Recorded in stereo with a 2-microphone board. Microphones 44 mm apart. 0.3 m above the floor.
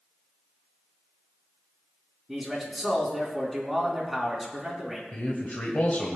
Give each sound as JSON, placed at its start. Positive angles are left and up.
{"t": 2.3, "sound": "a man speaking", "side_deg": -5, "distance_m": 3.0}
{"t": 5.1, "sound": "a man speaking", "side_deg": 35, "distance_m": 1.3}